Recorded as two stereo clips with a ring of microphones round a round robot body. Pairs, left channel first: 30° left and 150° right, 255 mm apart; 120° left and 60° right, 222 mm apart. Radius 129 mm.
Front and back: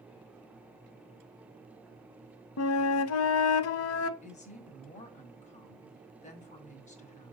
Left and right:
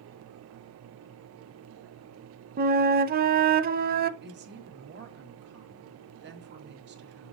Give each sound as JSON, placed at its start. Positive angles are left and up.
{"t": 2.6, "sound": "a flute", "azimuth_deg": -10, "distance_m": 0.6}
{"t": 4.2, "sound": "a woman speaking", "azimuth_deg": -30, "distance_m": 2.0}